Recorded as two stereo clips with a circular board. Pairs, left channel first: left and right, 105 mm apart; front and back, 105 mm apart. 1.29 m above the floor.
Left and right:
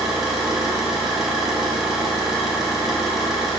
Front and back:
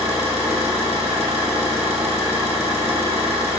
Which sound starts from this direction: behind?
An engine running, at 0.0 s.